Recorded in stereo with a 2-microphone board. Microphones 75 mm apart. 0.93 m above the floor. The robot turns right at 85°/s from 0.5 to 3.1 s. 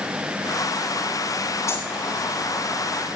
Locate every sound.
1.7 s a dropped coin: 40° left (ahead or behind), 9.5 m; by 1.9 s 60° left (ahead or behind), 9.5 m